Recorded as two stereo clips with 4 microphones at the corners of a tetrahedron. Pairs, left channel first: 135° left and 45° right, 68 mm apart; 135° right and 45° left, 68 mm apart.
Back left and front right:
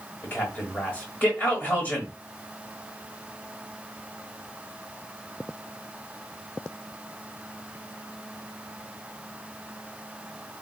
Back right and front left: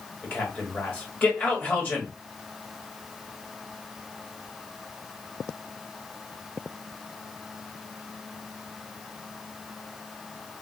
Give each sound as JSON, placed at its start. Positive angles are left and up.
{"t": 0.2, "sound": "a man speaking", "azimuth_deg": 175, "distance_m": 1.7}